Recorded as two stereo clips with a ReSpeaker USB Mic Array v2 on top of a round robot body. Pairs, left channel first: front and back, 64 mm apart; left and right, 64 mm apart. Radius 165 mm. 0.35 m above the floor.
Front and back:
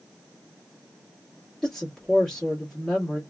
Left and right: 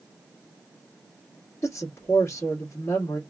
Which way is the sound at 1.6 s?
85° left.